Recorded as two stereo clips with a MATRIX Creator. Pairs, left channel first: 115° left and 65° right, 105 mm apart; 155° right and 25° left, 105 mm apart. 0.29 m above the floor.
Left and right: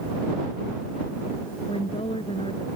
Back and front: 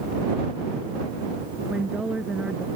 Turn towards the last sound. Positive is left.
turn(degrees=105)